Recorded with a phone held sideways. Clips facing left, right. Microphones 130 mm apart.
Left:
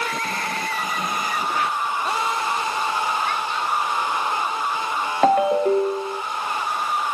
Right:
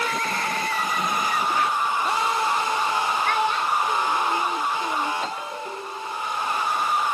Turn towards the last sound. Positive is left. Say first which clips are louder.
# left 15 dB
turn(degrees=60)  # may be behind; listen again after turning